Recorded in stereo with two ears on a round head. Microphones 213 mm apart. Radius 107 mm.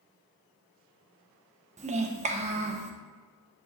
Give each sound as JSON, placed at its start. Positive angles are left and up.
{"t": 1.8, "sound": "a child speaking", "side_deg": -30, "distance_m": 0.8}